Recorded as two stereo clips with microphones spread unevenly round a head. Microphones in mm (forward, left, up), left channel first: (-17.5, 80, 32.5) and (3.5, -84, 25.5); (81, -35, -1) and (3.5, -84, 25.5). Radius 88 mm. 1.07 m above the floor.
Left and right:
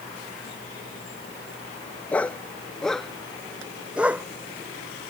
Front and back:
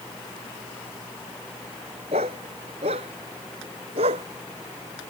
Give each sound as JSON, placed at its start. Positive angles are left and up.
{"t": 2.1, "sound": "a dog barking", "azimuth_deg": 180}